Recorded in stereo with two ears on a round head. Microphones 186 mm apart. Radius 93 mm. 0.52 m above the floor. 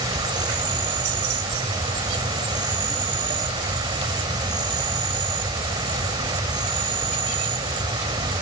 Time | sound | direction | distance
0.0 | an insect | 25° right (ahead or behind) | ?